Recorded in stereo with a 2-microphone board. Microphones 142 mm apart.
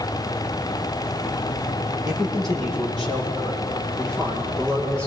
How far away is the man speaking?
About 8.5 m.